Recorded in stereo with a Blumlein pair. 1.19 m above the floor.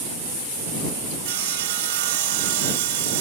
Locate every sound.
1.2 s sawing: 50° right